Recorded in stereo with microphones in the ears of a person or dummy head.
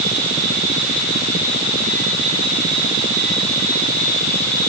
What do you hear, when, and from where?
Only background noise.